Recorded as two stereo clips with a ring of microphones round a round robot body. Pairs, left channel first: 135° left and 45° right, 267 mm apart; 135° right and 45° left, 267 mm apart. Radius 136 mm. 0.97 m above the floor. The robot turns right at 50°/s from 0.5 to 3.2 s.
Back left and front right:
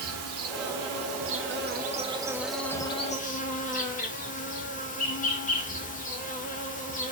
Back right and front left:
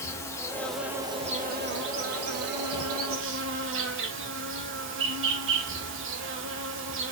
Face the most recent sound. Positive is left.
turn(degrees=80)